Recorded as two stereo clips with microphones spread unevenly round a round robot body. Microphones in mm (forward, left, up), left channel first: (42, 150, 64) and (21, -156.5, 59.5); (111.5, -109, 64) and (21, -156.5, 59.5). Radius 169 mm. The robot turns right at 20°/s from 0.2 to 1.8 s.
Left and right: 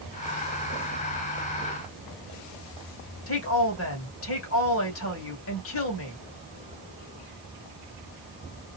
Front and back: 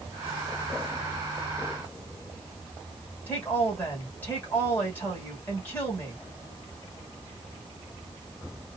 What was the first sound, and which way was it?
A woman speaking, 100° left.